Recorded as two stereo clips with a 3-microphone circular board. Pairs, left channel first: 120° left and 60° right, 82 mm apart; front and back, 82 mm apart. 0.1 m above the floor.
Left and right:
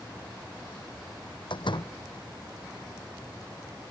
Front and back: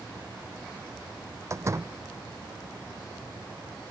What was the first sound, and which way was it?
A door slam, 130° left.